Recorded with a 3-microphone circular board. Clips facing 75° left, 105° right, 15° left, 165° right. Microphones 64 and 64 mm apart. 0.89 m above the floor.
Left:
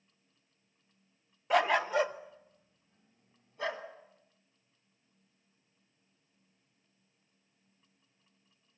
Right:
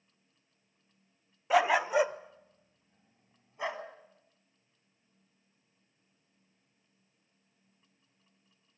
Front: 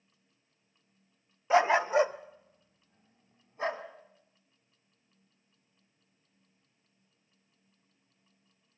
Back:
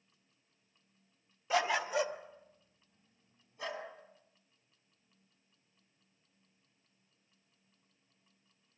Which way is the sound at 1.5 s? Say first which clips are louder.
Right 2 dB, front 8 dB; 20° right.